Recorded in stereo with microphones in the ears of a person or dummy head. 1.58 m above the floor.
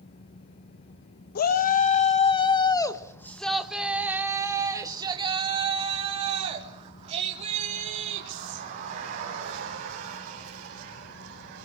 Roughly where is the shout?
Left.